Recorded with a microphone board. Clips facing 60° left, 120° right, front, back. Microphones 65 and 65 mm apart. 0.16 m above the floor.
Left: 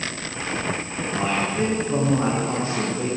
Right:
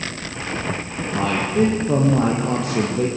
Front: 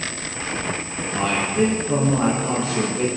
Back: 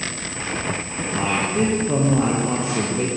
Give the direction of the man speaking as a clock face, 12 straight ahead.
4 o'clock.